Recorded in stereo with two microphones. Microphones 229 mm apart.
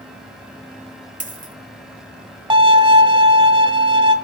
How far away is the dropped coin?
About 1.4 m.